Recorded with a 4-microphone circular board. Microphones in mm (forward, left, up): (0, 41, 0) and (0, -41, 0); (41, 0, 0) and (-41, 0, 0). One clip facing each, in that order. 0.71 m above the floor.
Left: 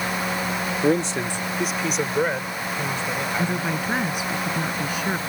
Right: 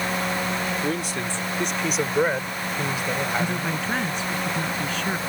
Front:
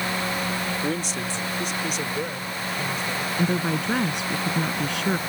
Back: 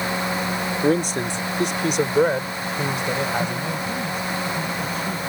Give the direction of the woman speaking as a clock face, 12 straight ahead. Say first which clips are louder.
Left 1 dB, front 1 dB; 12 o'clock.